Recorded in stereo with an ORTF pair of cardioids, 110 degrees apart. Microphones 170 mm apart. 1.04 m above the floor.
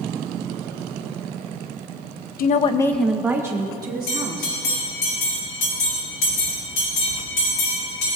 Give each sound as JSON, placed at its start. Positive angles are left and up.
{"t": 2.4, "sound": "a woman speaking", "azimuth_deg": 60, "distance_m": 0.6}
{"t": 4.1, "sound": "a bell", "azimuth_deg": 65, "distance_m": 4.0}